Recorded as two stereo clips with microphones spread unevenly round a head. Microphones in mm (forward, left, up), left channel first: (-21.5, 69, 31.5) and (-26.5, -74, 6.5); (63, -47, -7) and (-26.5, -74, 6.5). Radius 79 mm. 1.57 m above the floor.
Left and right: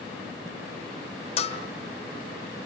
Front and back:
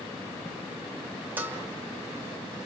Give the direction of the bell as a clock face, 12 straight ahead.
8 o'clock.